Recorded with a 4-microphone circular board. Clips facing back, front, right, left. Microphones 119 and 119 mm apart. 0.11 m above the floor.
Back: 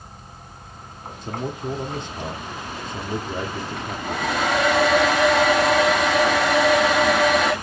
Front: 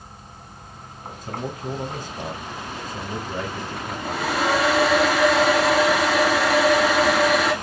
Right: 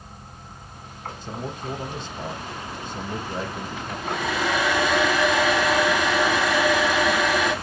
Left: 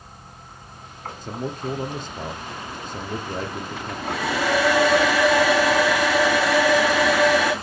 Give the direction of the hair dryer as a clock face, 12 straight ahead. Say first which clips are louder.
Even, left 1 dB; 9 o'clock.